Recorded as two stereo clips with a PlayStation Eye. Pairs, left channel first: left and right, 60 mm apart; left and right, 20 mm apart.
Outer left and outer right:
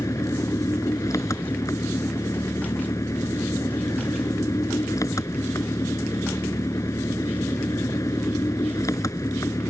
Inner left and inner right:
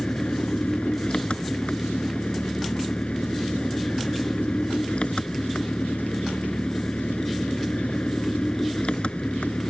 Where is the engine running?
65° left (ahead or behind).